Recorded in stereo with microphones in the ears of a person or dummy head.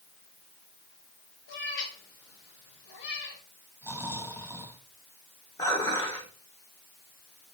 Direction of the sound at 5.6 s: 20° left (ahead or behind).